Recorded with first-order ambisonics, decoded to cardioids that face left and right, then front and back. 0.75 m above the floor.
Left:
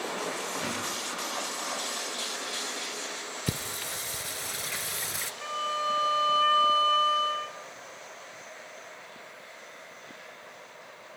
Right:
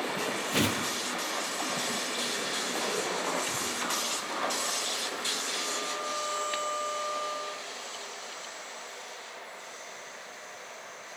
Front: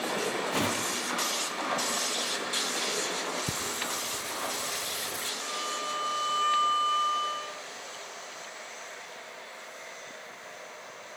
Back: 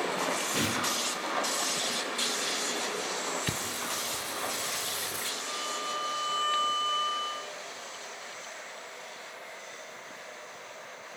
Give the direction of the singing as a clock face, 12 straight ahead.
9 o'clock.